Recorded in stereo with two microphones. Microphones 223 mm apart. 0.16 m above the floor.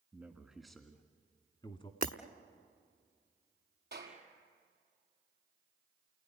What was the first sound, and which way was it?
A man speaking, 10° right (ahead or behind).